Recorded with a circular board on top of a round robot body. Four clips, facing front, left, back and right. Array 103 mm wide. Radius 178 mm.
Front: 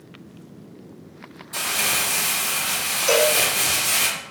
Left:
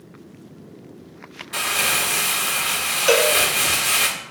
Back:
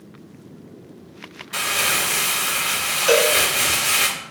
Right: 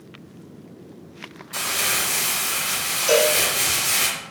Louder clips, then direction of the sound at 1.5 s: Left 3 dB, back 3 dB; 135° left.